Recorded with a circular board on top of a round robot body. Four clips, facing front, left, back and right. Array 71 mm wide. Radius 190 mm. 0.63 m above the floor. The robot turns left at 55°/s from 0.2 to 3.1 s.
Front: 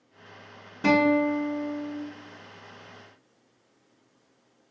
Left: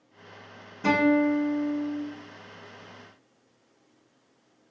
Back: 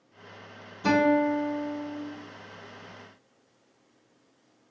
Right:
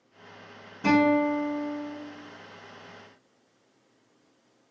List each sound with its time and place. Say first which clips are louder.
0.8 s a guitar: even, front 1 dB; straight ahead, 0.9 m; by 2.0 s 60° right, 0.9 m